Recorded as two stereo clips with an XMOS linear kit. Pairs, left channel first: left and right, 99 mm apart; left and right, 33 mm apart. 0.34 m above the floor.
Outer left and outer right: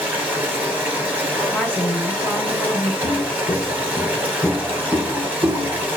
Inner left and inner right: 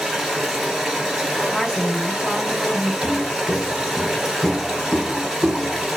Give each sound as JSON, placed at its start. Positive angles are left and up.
{"t": 0.0, "sound": "running water", "side_deg": -15, "distance_m": 1.4}
{"t": 1.5, "sound": "a woman speaking", "side_deg": 10, "distance_m": 1.1}
{"t": 3.0, "sound": "footsteps", "side_deg": 55, "distance_m": 0.9}